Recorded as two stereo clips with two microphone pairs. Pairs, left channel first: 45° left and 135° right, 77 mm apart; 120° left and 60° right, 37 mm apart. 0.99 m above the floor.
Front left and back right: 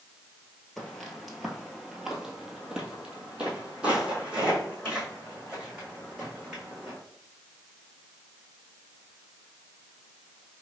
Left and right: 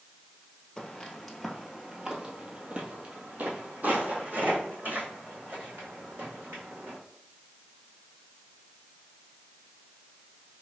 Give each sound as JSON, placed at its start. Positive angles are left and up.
{"t": 0.8, "sound": "footsteps", "azimuth_deg": 110, "distance_m": 1.0}